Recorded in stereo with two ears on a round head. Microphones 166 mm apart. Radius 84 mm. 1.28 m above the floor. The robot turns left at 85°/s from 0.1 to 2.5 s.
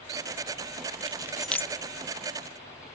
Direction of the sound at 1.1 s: 30° right (ahead or behind).